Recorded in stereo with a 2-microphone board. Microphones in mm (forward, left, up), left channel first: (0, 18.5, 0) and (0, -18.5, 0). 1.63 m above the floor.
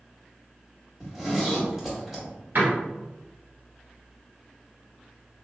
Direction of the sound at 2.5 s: 60° right (ahead or behind).